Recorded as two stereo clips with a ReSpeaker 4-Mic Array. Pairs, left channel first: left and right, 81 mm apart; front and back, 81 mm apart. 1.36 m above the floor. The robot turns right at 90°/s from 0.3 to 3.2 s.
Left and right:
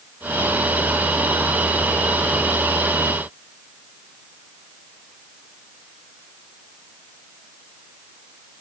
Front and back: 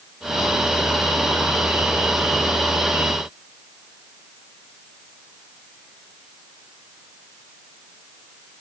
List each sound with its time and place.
Only background noise.